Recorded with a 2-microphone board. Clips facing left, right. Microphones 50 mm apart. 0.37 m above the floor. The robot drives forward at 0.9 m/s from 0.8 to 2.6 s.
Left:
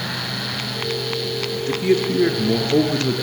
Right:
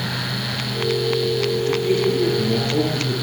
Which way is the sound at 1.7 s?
70° left (ahead or behind).